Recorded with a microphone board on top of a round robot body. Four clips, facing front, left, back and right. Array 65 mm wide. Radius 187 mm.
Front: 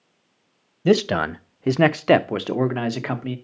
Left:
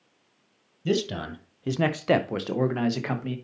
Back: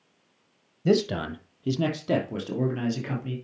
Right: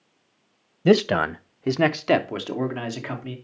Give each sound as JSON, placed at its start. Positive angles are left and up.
{"t": 0.8, "sound": "a man speaking", "azimuth_deg": -75, "distance_m": 0.7}